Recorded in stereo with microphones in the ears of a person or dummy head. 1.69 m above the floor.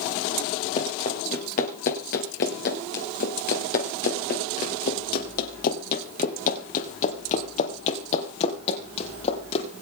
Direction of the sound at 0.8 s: 30° left (ahead or behind).